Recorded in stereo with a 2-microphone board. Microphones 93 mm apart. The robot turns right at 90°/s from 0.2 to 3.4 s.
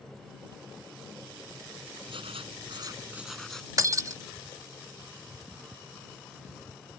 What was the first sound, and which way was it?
Writing, 115° right.